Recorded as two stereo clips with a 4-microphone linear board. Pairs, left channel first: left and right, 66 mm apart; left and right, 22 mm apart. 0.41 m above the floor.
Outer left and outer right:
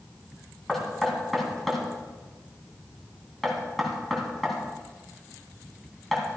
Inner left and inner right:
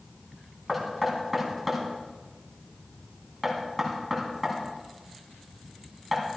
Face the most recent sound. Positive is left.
turn(degrees=5)  # may be behind; listen again after turning